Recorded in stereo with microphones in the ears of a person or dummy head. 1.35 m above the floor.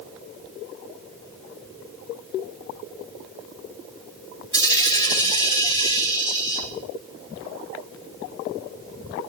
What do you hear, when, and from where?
4.5 s a dropped coin: 20° left (ahead or behind), 2.5 m